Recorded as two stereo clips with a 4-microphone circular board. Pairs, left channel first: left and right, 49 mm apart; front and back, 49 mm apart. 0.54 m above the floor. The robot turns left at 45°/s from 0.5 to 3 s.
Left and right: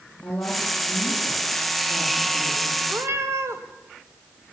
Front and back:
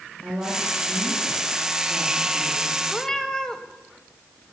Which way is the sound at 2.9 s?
70° right.